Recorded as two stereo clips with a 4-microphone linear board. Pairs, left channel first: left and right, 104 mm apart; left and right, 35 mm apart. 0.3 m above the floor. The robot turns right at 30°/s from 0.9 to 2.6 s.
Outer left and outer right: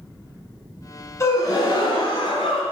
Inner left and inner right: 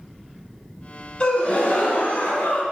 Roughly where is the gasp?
Ahead left.